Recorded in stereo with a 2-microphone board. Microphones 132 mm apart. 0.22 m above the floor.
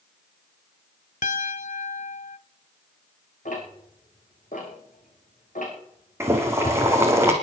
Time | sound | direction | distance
1.2 | a piano | 70° left (ahead or behind) | 0.5 m
3.5 | ticking | 85° left | 5 m
6.2 | boiling | 20° right (ahead or behind) | 3 m